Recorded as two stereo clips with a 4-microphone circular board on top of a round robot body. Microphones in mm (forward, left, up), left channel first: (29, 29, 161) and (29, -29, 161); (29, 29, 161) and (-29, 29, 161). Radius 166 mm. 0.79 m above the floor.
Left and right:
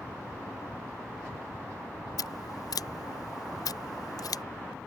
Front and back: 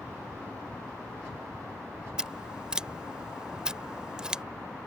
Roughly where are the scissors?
Left.